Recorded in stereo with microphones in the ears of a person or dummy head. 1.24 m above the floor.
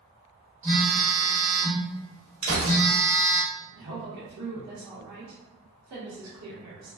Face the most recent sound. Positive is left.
turn(degrees=-85)